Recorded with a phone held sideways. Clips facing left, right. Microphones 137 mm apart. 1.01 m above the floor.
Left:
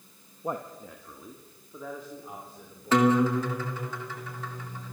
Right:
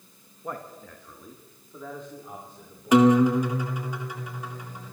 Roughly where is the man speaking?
Left.